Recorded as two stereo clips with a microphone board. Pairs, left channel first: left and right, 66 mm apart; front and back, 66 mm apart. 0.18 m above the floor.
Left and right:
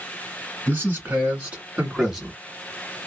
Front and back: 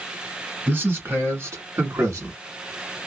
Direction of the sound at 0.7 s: 135° right.